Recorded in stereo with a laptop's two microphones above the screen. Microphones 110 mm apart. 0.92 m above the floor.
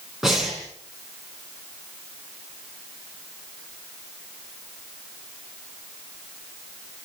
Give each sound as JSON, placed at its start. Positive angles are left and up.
{"t": 0.2, "sound": "breathing", "side_deg": -5, "distance_m": 5.5}